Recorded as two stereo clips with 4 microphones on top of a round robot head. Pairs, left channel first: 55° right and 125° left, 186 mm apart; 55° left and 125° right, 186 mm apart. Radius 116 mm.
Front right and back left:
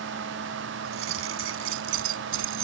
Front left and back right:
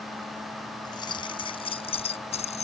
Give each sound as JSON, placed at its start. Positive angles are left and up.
{"t": 0.8, "sound": "keys jangling", "azimuth_deg": 125}